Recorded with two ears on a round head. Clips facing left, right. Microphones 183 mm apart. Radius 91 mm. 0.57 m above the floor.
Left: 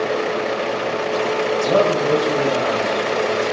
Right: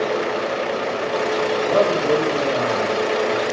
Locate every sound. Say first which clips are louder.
1.6 s a man speaking: left 1 dB; 60° left (ahead or behind), 2.5 m; by 3.4 s 75° left (ahead or behind), 3 m